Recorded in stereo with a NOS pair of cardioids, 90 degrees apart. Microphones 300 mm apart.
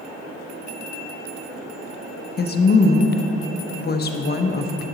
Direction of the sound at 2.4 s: 35° left.